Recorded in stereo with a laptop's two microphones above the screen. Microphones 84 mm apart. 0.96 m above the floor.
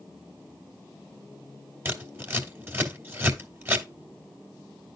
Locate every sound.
1.9 s scissors: 25° right (ahead or behind), 2.5 m